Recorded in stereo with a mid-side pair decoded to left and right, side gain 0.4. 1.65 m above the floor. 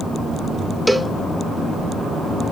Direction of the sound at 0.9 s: 15° right.